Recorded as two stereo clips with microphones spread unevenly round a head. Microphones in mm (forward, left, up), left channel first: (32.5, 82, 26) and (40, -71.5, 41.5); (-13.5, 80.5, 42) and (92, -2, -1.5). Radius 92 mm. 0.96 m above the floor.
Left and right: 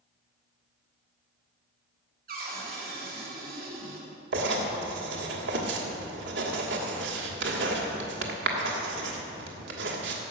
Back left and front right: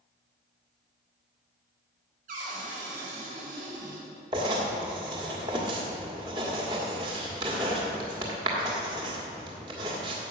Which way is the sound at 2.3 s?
60° right.